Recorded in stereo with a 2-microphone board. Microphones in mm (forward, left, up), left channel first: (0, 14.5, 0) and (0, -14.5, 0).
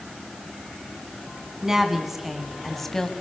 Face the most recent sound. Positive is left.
turn(degrees=15)  # may be behind; listen again after turning